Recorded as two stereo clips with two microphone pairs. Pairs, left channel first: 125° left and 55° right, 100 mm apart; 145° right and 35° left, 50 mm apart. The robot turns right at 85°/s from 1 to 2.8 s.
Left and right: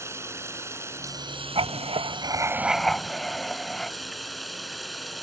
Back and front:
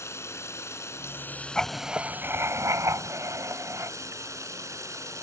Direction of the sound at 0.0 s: 120° right.